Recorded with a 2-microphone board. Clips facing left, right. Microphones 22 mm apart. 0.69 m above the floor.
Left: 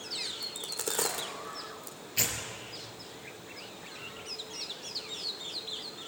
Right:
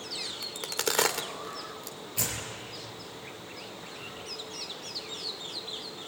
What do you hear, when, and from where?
0.4 s a crack: 60° right (ahead or behind), 1.4 m
2.2 s tearing paper: 30° left (ahead or behind), 4.5 m